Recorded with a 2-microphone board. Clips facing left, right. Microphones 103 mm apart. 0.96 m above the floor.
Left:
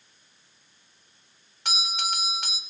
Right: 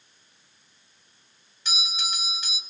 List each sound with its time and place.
1.6 s a doorbell: 65° left (ahead or behind), 3 m